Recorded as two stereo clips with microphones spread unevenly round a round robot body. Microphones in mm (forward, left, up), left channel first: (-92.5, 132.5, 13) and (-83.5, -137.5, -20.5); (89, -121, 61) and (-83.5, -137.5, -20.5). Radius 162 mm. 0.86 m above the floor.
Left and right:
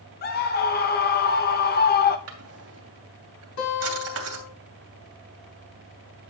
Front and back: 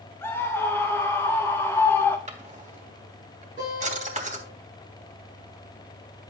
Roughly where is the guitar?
Left.